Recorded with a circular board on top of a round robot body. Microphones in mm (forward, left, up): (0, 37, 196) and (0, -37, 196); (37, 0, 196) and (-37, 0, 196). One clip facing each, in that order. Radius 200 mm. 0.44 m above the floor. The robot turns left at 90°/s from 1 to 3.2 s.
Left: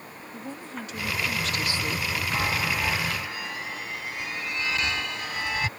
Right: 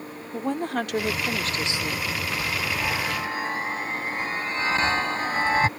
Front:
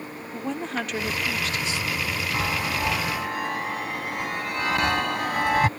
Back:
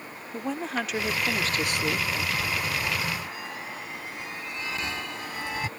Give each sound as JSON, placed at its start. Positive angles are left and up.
{"t": 0.3, "sound": "a woman speaking", "azimuth_deg": -90}
{"t": 2.3, "sound": "a chime", "azimuth_deg": 45}